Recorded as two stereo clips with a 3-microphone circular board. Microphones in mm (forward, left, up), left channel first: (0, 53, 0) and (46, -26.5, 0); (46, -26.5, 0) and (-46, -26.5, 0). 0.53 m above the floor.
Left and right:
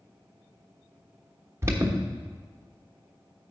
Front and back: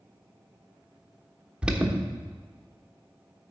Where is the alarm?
105° right, 1.2 m.